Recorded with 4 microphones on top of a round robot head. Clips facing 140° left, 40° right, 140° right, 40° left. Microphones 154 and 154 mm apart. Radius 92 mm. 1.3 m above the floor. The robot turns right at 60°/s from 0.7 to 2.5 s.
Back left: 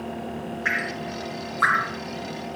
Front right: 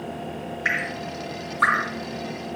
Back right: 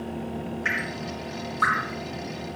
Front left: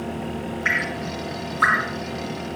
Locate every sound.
0.7 s dripping: 80° right, 1.1 m; by 2.6 s 30° left, 1.1 m